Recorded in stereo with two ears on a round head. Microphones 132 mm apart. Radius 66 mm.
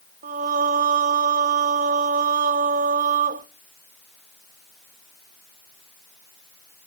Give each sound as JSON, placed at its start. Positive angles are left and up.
{"t": 0.2, "sound": "singing", "side_deg": -55, "distance_m": 0.5}